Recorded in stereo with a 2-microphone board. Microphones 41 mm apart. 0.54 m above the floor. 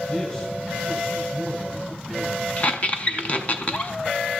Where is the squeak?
35° left (ahead or behind), 0.8 m.